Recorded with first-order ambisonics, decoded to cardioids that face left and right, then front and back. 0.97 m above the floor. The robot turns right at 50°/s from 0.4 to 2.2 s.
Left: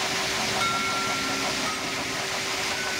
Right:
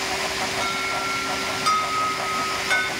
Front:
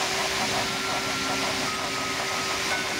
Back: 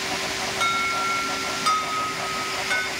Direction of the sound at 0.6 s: 165° left.